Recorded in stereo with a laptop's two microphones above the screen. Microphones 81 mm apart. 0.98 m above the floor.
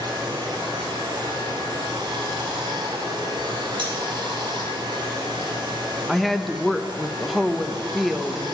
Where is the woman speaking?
Centre (ahead or behind), 0.5 m.